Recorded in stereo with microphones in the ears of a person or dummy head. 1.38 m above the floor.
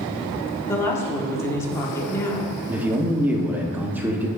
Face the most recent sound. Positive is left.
turn(degrees=-10)  # may be behind; listen again after turning